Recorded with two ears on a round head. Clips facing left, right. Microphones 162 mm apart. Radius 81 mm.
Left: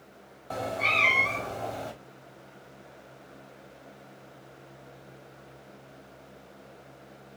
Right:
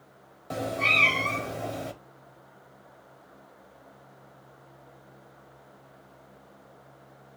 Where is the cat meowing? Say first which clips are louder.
Right 1 dB; 30° right (ahead or behind), 1.0 m.